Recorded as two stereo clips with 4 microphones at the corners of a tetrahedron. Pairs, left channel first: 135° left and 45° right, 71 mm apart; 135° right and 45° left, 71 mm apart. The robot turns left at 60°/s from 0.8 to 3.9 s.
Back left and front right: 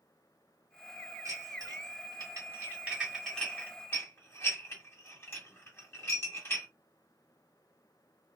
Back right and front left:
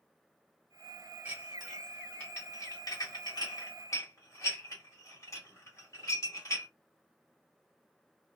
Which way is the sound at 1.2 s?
20° right.